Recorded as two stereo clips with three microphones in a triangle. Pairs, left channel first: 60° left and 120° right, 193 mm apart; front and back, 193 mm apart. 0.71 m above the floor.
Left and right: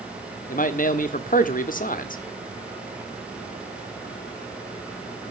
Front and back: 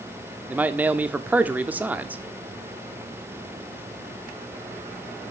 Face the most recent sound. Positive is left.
turn(degrees=100)